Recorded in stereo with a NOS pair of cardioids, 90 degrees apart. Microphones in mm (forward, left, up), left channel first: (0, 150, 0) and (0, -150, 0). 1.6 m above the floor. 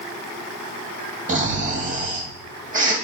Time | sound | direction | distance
1.3 | snoring | 25° right | 2.5 m